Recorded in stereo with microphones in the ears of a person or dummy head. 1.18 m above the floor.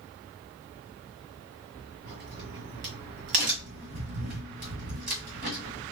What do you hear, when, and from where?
2.0 s a crack: 40° right (ahead or behind), 1.3 m